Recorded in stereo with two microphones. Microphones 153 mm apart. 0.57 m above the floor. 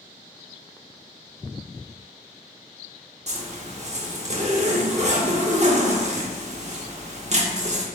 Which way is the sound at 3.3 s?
45° right (ahead or behind).